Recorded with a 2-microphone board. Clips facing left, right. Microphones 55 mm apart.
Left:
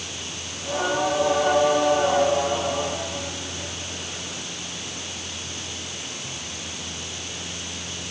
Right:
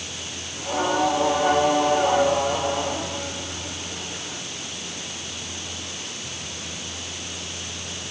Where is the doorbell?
No doorbell in this recording.